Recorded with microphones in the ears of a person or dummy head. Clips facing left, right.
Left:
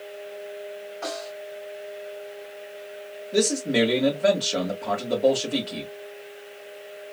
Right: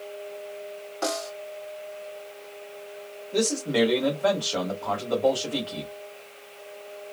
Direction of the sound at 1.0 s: 75° right (ahead or behind).